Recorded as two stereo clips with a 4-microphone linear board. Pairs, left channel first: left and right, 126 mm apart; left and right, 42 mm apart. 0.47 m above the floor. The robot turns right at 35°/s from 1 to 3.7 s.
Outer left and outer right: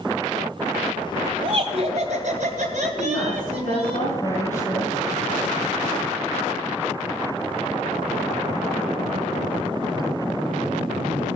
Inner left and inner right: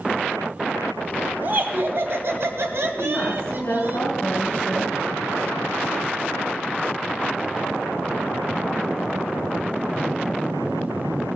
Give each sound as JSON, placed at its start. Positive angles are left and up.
{"t": 1.4, "sound": "laughter", "azimuth_deg": -135, "distance_m": 3.0}
{"t": 3.0, "sound": "a woman speaking", "side_deg": 55, "distance_m": 3.5}